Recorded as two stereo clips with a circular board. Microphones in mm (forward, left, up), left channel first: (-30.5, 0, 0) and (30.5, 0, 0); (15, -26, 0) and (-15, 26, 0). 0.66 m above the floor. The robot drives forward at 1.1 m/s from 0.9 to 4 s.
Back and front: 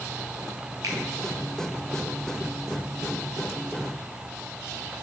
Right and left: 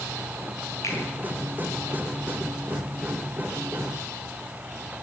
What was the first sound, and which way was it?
A finger snap, 25° right.